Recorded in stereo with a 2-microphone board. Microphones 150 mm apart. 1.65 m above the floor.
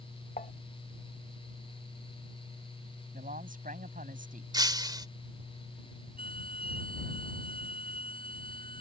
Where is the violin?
65° right (ahead or behind).